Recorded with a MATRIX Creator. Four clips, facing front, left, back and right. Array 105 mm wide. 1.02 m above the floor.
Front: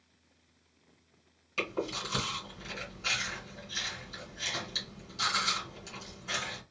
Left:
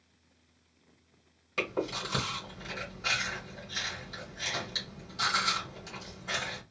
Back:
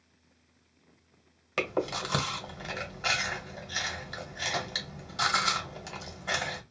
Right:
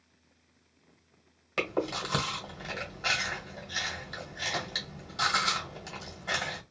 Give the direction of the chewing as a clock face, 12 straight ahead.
5 o'clock.